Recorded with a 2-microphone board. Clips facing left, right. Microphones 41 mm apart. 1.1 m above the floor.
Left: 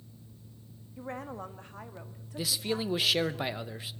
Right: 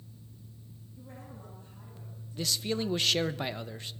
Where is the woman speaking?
55° left (ahead or behind), 2 m; by 3.4 s 80° left, 4 m.